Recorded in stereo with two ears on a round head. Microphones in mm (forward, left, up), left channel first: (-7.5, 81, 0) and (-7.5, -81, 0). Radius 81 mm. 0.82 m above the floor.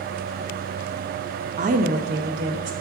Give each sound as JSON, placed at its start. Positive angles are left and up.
{"t": 1.6, "sound": "a woman speaking", "side_deg": -40, "distance_m": 0.5}